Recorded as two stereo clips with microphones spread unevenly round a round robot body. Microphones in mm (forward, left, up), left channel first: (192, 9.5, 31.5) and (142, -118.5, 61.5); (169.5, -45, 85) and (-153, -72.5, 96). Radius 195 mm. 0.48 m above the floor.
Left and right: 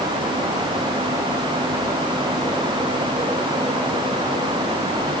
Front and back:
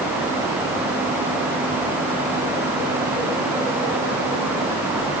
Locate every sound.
Only background noise.